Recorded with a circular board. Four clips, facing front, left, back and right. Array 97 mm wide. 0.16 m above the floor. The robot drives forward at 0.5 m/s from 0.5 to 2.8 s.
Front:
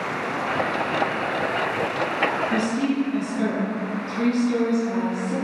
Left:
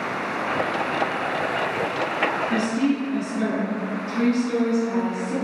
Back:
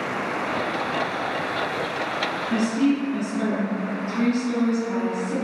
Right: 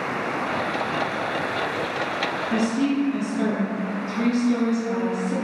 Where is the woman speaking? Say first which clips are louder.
Right 3 dB, back 2 dB; 110° left, 1.5 m; by 5.3 s 120° left, 1.5 m.